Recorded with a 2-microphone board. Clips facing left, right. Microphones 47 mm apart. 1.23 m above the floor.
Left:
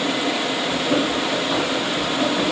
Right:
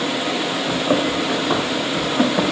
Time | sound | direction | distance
0.7 | running footsteps | 70° right (ahead or behind) | 3.5 m